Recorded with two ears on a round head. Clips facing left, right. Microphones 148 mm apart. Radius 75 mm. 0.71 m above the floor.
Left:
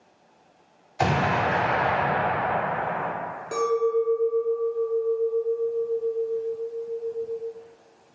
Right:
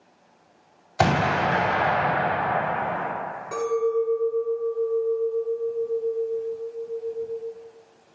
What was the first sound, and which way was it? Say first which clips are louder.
An explosion: right 2 dB; 65° right (ahead or behind).